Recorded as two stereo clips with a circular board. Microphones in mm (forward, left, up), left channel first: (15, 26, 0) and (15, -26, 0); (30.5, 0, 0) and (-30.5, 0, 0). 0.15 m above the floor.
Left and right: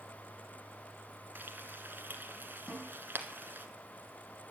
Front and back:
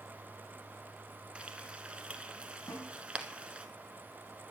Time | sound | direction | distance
1.4 | frying | 115° right | 1.4 m
2.7 | a snare drum | 10° left | 7 m